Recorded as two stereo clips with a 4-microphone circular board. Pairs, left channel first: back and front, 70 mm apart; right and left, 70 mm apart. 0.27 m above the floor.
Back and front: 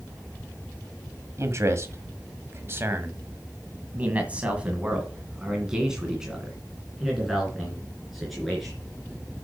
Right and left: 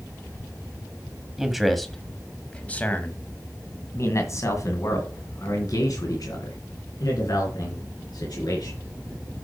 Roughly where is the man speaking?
Ahead.